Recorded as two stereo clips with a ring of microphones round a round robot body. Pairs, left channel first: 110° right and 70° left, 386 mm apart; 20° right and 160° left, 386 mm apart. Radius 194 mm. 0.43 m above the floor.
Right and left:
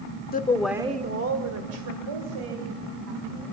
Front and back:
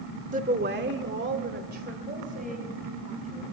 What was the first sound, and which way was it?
A woman speaking, 155° right.